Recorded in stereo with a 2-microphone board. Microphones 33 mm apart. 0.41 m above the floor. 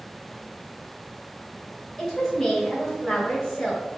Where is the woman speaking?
20° left (ahead or behind), 1.4 m.